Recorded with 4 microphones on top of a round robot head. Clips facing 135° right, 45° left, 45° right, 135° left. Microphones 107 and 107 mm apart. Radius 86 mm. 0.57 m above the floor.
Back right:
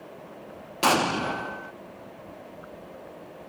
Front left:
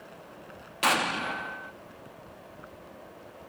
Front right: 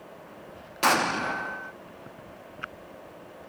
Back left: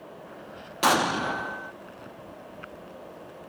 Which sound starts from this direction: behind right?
An explosion, at 0.8 s.